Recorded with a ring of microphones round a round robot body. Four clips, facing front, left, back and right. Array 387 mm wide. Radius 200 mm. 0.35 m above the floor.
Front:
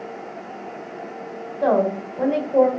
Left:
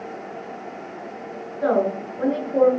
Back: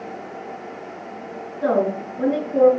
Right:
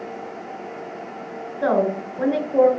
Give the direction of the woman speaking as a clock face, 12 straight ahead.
1 o'clock.